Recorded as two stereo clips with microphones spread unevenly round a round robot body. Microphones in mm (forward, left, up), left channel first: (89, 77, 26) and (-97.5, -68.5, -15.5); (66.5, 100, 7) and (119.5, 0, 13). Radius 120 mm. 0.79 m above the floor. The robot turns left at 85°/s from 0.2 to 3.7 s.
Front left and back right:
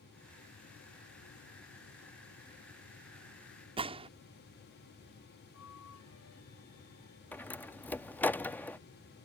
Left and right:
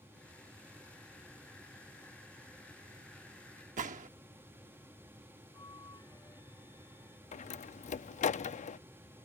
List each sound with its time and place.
3.8 s a gunshot: 75° right
5.5 s a flute: 60° left
7.3 s a door slam: 125° left